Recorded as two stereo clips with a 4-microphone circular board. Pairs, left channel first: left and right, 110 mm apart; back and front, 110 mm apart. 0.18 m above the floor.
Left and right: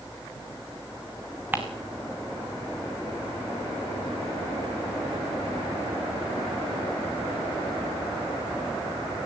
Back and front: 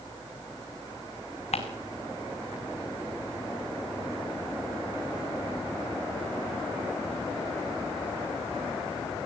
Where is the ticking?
165° right, 2.5 m.